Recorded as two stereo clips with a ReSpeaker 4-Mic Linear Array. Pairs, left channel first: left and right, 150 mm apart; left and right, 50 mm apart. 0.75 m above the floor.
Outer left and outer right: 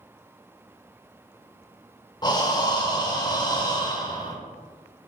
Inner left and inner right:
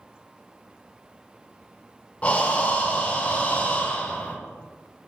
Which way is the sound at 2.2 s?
25° left (ahead or behind).